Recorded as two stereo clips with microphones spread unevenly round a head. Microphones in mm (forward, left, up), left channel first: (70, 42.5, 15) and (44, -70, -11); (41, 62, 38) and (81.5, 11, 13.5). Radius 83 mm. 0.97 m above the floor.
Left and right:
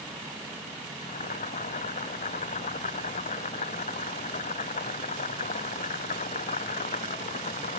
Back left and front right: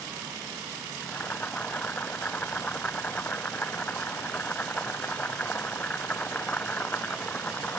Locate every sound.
1.0 s boiling: 65° left